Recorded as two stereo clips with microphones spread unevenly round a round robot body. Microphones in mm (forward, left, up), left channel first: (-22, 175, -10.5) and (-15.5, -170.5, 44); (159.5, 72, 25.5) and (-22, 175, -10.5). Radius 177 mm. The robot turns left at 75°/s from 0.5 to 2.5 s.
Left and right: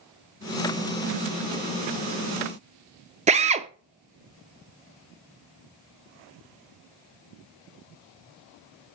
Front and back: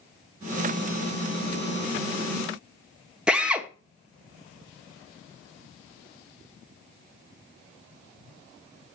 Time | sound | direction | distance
3.3 | a drill | 155° right | 0.7 m